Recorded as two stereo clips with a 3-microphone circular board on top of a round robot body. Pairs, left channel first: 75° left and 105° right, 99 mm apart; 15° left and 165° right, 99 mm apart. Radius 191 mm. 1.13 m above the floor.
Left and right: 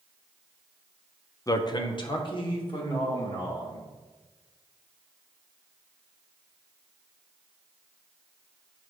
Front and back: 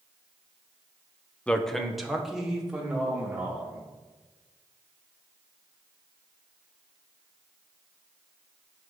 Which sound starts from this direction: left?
A man speaking, at 1.5 s.